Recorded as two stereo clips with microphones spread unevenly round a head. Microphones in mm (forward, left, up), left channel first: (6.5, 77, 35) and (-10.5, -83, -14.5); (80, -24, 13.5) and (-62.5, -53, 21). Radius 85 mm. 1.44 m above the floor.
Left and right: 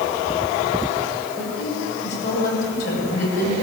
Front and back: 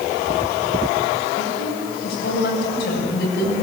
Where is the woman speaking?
50° left, 8 m.